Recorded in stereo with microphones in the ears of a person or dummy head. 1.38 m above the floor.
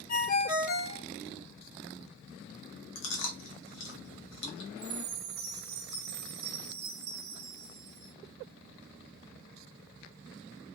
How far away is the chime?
About 0.9 m.